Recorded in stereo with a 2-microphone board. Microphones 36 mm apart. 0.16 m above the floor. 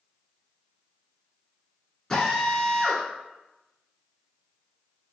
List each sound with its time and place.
2.1 s a drill: 15° left (ahead or behind), 1.5 m